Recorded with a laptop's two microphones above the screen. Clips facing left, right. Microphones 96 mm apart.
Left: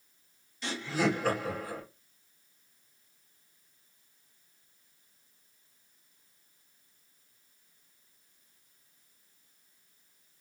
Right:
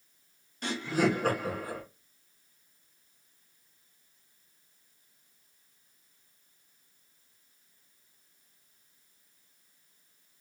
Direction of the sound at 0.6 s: 50° right (ahead or behind).